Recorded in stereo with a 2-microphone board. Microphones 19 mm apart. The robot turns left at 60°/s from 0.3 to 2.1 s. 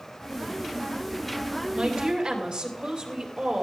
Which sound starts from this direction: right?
A woman speaking, at 1.7 s.